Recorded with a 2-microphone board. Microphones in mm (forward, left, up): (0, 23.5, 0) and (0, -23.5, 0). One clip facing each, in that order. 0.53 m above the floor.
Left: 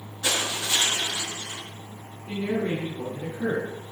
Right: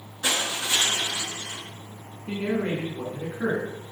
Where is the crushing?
20° right (ahead or behind), 7.5 m.